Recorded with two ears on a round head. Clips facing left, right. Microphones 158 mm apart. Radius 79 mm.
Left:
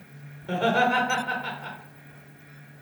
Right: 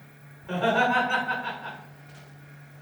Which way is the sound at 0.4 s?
40° left (ahead or behind).